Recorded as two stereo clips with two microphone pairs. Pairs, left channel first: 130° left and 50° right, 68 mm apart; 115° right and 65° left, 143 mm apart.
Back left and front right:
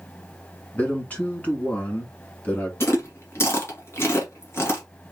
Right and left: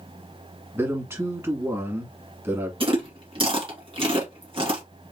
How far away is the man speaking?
About 1.7 m.